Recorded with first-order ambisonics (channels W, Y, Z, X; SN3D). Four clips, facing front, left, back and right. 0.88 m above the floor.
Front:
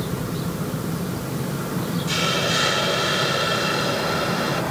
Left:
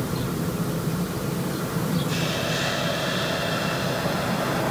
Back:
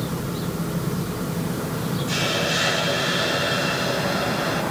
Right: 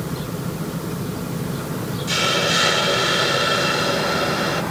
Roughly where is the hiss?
Right.